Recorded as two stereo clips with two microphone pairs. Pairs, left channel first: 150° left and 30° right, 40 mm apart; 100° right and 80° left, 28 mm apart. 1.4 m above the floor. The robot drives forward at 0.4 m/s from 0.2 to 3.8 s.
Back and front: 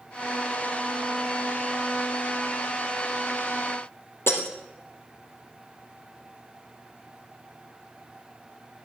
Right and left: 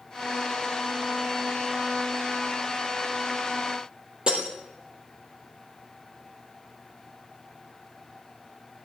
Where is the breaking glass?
140° left, 3 m.